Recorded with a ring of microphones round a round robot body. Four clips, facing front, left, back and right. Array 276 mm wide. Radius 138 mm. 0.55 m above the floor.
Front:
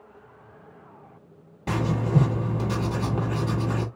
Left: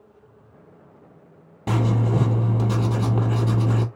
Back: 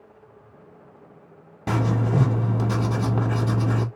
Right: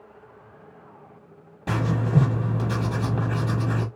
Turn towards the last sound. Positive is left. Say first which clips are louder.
# left 2 dB, back 1 dB
turn(degrees=145)